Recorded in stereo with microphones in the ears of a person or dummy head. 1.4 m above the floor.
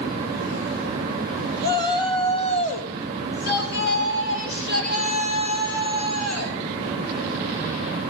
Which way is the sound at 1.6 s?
20° left (ahead or behind).